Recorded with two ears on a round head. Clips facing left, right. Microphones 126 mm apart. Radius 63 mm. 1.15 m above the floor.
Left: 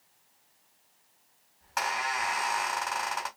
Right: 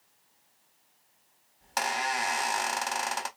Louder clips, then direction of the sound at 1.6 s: Right 1 dB; 40° right (ahead or behind).